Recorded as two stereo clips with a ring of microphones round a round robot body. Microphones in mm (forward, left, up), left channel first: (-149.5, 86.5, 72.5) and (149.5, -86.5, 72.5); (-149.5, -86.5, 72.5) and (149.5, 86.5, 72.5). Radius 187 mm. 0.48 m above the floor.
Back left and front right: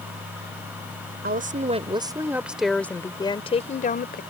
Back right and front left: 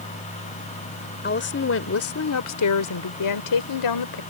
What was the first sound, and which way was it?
A woman speaking, 90° right.